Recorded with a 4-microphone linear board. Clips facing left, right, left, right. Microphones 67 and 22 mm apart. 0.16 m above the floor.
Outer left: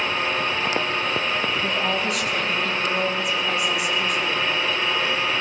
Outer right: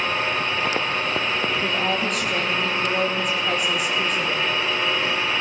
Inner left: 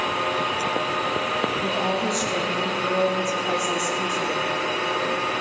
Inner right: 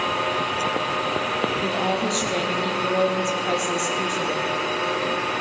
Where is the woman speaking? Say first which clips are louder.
Even, even; 45° right (ahead or behind), 3.5 m.